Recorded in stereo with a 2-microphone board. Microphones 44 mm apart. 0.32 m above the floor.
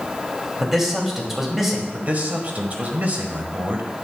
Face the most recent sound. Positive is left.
turn(degrees=-40)  # may be behind; listen again after turning